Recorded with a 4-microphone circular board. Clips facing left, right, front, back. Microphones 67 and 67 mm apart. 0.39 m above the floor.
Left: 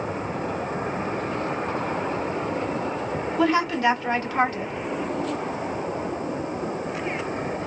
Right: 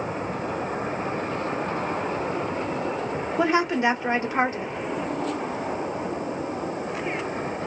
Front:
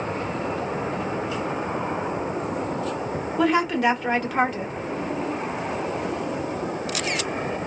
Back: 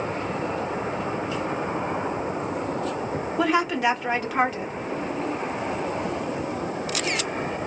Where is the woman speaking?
95° right, 1.1 m.